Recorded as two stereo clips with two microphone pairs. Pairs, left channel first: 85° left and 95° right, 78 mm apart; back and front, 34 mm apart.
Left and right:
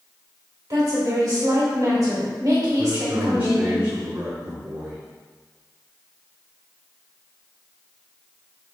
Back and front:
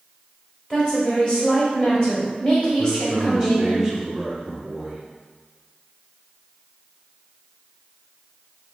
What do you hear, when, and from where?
0.7 s a woman speaking: 120° right, 1.5 m
2.8 s a man speaking: 65° right, 1.0 m